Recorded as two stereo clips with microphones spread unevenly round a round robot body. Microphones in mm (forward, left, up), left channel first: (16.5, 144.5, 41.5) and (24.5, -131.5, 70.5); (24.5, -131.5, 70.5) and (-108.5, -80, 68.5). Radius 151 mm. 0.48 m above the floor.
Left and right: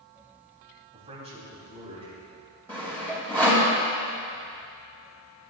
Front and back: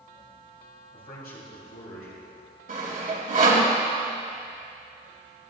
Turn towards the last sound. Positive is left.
turn(degrees=175)